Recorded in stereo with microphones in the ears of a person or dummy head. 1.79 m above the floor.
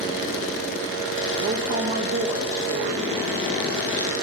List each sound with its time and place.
1.4 s a woman speaking: 60° right (ahead or behind), 0.9 m